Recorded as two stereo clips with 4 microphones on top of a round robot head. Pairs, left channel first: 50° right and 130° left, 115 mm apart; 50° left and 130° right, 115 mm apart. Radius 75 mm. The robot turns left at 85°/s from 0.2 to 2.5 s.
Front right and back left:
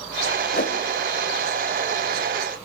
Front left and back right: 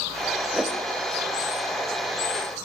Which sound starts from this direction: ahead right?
A whoosh, at 0.5 s.